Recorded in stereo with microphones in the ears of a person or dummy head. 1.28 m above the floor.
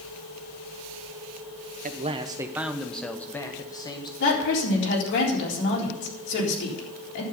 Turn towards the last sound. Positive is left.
turn(degrees=65)  # may be behind; listen again after turning